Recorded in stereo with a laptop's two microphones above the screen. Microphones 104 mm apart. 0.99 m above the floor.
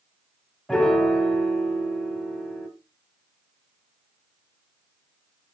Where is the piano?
5° left (ahead or behind), 1.5 m.